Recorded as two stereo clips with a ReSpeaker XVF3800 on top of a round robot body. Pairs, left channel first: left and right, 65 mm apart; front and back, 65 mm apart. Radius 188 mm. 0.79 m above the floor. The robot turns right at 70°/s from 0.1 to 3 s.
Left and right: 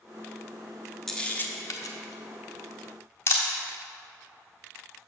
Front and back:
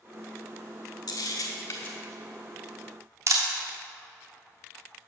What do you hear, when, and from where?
1.1 s a camera shutter: 5° left, 0.7 m; by 3.4 s 140° left, 0.7 m